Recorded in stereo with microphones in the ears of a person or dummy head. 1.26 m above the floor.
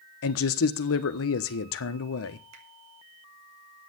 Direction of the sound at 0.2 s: 65° left (ahead or behind).